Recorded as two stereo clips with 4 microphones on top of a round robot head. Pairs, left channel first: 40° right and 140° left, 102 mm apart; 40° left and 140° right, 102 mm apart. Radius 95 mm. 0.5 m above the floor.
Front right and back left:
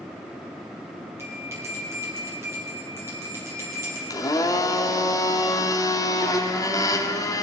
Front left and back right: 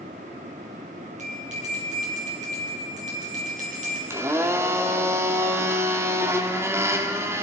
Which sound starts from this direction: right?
A blender, at 4.1 s.